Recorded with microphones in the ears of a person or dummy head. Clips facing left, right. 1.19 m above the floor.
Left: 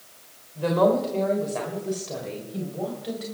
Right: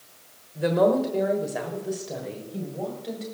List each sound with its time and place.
0.6 s a woman speaking: 20° right (ahead or behind), 3 m; by 3.2 s 5° left (ahead or behind), 4 m